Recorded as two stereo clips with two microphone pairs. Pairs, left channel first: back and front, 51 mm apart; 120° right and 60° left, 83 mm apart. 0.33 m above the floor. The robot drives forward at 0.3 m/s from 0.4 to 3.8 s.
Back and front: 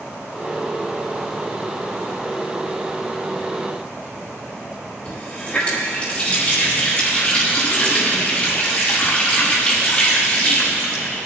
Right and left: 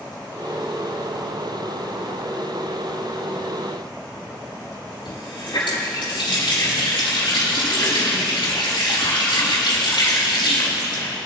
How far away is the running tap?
About 5.5 m.